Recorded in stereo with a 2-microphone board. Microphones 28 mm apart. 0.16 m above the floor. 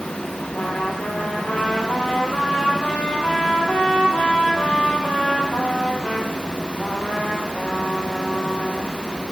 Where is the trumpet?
55° left (ahead or behind), 3 m.